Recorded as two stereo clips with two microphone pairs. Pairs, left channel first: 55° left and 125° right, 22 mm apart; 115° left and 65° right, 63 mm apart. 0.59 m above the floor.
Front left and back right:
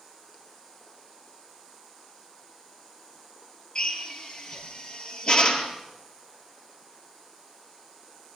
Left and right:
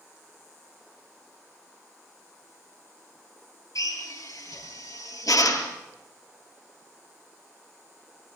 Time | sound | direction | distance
3.8 | a drill | 95° left | 6.5 m